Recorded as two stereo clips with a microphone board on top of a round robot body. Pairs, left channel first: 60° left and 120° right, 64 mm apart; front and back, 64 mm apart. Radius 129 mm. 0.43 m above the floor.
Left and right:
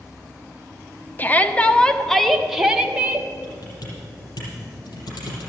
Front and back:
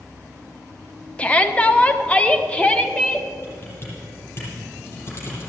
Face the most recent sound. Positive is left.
turn(degrees=55)